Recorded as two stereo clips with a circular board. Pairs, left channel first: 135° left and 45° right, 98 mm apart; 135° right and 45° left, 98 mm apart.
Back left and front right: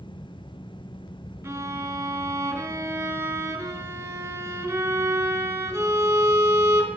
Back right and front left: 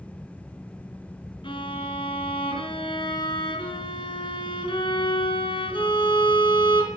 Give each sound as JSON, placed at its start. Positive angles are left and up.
{"t": 1.4, "sound": "a violin", "azimuth_deg": -110, "distance_m": 3.5}